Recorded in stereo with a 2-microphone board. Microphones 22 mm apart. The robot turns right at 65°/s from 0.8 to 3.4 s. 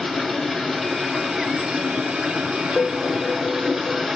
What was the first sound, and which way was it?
Running water, 175° right.